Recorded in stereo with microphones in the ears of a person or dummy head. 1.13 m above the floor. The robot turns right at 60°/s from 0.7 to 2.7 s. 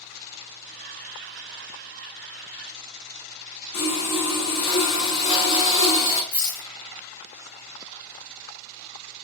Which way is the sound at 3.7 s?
65° left (ahead or behind).